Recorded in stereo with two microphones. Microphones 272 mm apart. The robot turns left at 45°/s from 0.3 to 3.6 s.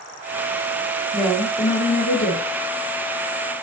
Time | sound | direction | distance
1.1 | a woman speaking | straight behind | 1.3 m